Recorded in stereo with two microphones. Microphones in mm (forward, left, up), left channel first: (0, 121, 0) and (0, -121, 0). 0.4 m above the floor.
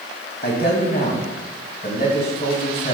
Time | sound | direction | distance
0.4 | a man speaking | 40° left (ahead or behind) | 2 m